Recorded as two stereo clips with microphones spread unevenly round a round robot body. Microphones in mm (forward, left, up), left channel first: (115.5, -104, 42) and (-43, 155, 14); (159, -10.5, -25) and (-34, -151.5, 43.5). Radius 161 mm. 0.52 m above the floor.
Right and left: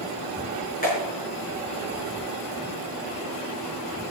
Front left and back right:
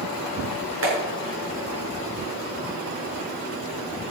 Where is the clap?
125° right, 5.5 m.